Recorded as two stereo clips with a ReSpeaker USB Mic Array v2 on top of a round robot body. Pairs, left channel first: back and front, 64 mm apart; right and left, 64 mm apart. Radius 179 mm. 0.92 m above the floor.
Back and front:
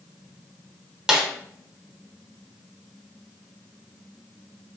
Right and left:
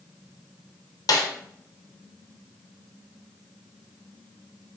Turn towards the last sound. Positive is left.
turn(degrees=-80)